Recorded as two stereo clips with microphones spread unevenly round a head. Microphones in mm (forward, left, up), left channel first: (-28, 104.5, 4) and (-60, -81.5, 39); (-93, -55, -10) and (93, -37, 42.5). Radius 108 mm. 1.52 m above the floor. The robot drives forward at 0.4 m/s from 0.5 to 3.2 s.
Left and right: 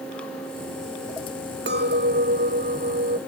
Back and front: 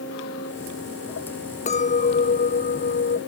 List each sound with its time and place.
1.7 s a clink: 120° right; by 3.2 s 130° right